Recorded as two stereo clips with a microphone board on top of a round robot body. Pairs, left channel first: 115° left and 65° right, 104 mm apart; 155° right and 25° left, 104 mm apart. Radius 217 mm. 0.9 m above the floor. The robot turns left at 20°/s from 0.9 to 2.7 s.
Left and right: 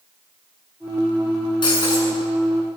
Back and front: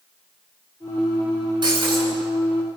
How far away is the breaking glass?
About 8 m.